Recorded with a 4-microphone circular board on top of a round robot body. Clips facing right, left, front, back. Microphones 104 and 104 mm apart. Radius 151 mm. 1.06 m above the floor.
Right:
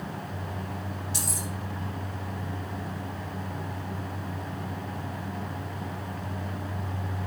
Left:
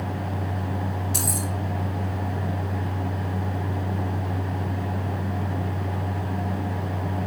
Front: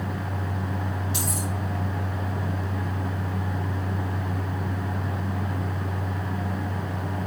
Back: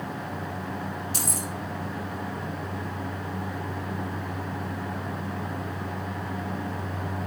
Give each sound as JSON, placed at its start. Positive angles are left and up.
{"t": 1.1, "sound": "keys jangling", "azimuth_deg": 130, "distance_m": 1.1}